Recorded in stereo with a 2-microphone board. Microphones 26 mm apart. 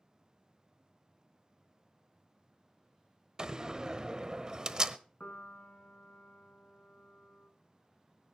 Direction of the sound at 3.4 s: 25° right (ahead or behind).